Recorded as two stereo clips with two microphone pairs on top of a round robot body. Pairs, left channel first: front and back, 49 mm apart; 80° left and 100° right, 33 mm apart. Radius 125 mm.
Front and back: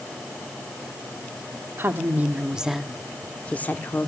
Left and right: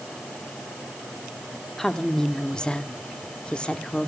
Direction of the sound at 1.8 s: 160° left.